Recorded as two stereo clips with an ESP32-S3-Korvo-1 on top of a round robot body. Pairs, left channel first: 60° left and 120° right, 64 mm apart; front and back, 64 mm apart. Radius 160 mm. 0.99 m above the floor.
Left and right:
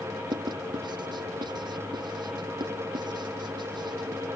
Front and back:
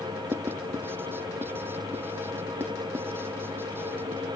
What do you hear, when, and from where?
0.3 s writing: 120° right